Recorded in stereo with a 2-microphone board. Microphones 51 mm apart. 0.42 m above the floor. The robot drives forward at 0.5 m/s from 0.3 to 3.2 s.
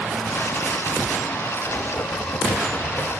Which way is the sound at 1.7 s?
45° left (ahead or behind).